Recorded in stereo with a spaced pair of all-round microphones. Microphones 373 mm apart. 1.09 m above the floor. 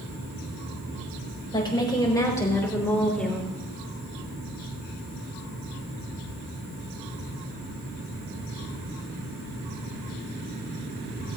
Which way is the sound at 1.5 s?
10° left (ahead or behind).